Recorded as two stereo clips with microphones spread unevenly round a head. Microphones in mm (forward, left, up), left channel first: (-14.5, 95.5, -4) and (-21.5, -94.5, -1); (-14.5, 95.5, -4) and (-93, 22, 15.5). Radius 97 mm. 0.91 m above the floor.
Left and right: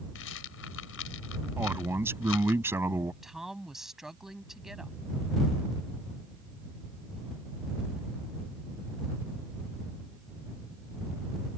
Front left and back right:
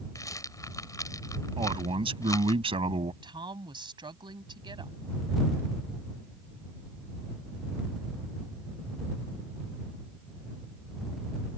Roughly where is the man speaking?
Behind.